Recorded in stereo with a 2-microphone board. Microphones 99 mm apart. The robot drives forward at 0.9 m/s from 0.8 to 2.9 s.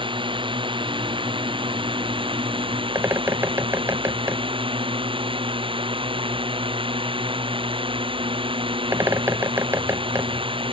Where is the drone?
65° right (ahead or behind); by 10.7 s 70° right (ahead or behind).